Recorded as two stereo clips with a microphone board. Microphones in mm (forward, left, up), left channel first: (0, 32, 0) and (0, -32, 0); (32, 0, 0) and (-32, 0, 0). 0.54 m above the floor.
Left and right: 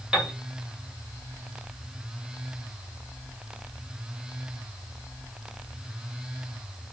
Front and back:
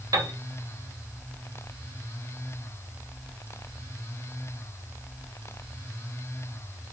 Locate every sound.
0.1 s a piano: 165° right, 1.8 m